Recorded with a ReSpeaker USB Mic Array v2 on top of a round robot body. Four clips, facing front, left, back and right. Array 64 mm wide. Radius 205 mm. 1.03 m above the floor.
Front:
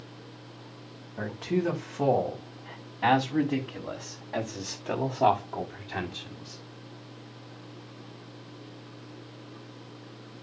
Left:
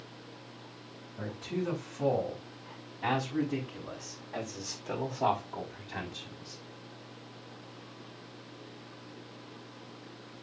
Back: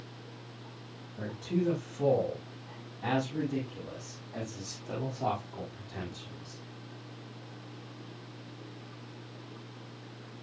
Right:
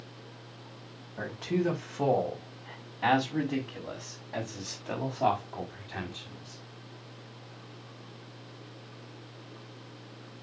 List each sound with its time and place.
1.2 s a man speaking: 35° right, 4.5 m; by 6.6 s 5° left, 4 m